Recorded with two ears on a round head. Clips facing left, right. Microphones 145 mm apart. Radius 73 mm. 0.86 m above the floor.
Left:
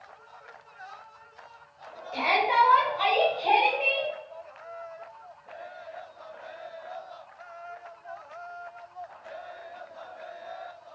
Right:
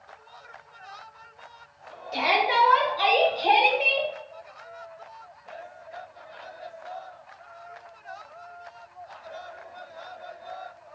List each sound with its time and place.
2.1 s a shout: 40° right (ahead or behind), 2 m; by 4.1 s 45° right (ahead or behind), 1.0 m